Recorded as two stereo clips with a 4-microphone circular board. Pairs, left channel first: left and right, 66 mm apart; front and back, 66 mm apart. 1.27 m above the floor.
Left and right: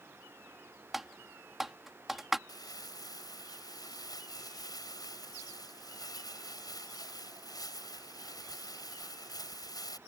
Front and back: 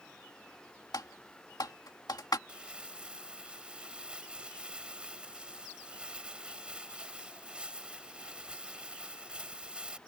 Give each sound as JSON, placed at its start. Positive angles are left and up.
{"t": 0.9, "sound": "typing on a keyboard", "azimuth_deg": -5}
{"t": 2.5, "sound": "crumpling", "azimuth_deg": 105}